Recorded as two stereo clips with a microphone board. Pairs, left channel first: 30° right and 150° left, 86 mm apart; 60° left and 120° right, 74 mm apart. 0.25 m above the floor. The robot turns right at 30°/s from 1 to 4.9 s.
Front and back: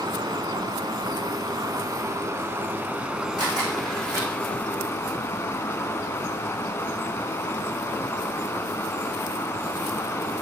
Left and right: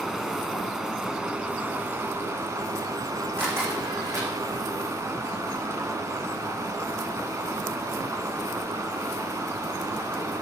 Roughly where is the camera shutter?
Behind.